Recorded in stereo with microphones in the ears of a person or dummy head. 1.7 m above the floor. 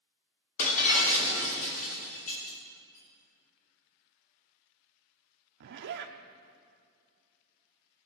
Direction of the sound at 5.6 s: 60° right (ahead or behind).